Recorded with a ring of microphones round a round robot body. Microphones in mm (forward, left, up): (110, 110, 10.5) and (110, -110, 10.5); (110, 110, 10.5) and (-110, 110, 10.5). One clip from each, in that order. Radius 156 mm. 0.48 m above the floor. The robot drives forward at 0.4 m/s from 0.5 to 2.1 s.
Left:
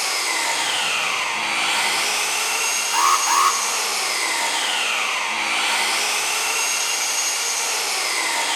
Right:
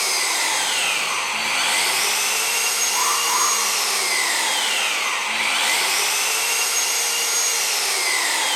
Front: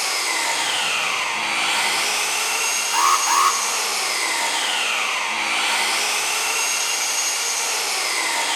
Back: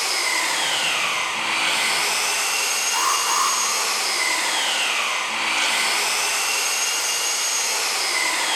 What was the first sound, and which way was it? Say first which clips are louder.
An engine running: right 1 dB, even; 75° right.